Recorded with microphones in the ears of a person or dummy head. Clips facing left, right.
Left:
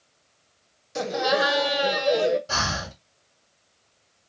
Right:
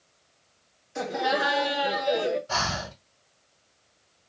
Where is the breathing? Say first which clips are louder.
Even; 50° left (ahead or behind), 1.6 m.